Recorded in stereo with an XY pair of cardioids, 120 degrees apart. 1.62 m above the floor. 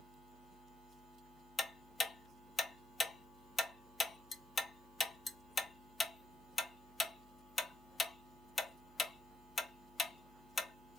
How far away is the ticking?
About 0.7 m.